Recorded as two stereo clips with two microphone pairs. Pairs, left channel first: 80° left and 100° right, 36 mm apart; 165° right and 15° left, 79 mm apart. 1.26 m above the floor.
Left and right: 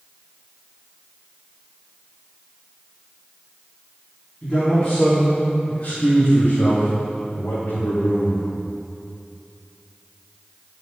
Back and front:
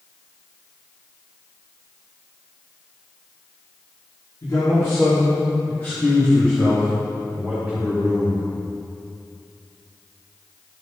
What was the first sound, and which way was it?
A man speaking, 155° left.